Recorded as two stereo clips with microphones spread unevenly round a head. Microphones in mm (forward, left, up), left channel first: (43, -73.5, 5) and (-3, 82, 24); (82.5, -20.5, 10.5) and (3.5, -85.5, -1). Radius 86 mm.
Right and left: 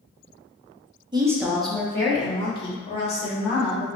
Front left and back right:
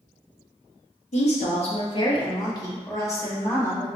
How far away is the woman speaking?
About 0.9 m.